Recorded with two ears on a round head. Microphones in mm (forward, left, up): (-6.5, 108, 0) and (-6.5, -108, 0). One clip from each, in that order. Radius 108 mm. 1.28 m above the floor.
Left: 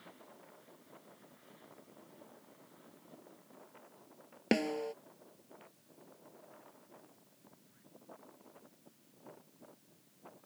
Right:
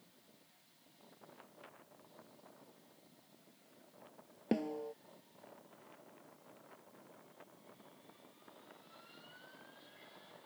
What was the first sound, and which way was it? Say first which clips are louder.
A snare drum: left 5 dB; 70° left (ahead or behind).